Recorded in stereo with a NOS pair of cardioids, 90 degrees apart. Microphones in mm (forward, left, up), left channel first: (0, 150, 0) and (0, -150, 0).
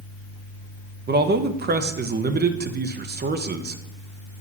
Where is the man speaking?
35° right, 1.0 m.